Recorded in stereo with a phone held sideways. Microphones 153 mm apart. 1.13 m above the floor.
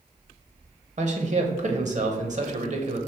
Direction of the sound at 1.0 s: 50° right (ahead or behind).